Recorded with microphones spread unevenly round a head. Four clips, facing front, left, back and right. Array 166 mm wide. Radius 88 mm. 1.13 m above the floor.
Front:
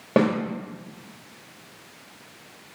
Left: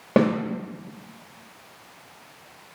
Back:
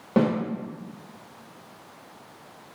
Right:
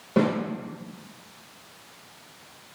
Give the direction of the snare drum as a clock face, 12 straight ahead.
10 o'clock.